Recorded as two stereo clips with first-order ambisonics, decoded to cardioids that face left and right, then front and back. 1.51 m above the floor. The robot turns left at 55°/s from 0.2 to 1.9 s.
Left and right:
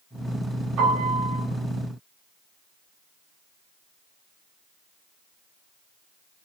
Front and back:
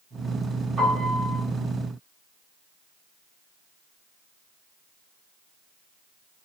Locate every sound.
0.8 s a piano: 95° right, 1.1 m; by 1.4 s 130° right, 1.1 m